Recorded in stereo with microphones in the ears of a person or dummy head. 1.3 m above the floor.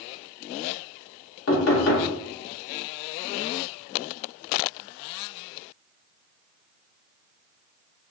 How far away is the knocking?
About 1.3 m.